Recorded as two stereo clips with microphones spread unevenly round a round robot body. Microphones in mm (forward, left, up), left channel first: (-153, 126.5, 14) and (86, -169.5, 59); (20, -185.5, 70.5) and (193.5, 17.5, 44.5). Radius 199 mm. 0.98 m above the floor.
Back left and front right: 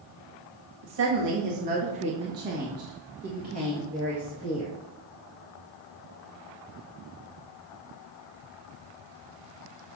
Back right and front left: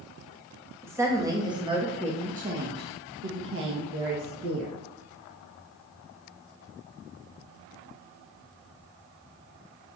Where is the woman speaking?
30° right, 2 m; by 4.7 s 50° left, 1.6 m.